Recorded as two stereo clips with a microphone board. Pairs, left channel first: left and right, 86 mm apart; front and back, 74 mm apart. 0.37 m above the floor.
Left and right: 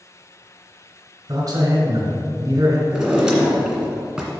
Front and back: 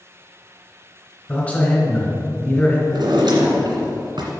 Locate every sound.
1.3 s a man speaking: 65° right, 2 m
2.9 s a drawer: 175° right, 1.8 m